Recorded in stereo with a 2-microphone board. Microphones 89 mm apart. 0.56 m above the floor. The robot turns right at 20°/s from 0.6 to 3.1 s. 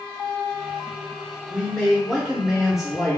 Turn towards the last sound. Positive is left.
turn(degrees=-165)